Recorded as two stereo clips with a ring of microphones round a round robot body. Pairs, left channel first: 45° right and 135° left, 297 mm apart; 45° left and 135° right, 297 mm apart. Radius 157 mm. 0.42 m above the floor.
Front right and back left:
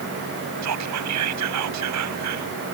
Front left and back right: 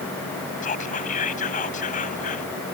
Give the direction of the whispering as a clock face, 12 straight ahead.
8 o'clock.